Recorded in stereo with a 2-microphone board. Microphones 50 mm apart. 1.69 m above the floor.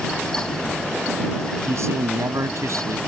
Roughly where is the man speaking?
Right.